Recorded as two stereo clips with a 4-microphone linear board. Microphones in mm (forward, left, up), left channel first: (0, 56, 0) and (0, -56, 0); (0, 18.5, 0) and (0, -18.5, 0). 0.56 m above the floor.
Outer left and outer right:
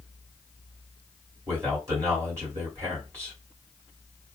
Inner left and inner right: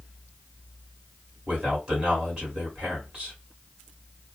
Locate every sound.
1.5 s a man speaking: 25° right (ahead or behind), 2 m